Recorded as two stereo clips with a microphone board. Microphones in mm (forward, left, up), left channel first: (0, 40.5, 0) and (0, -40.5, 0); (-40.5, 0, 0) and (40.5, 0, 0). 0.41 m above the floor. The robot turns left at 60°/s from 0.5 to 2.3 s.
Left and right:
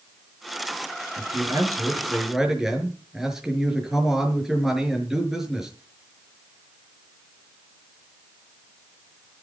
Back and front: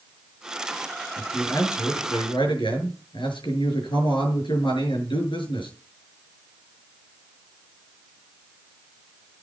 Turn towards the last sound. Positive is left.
turn(degrees=-175)